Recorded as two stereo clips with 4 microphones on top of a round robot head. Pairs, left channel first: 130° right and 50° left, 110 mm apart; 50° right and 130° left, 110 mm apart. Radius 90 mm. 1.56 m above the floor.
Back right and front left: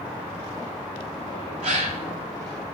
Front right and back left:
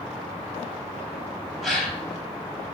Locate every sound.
1.6 s a gasp: 35° left, 1.6 m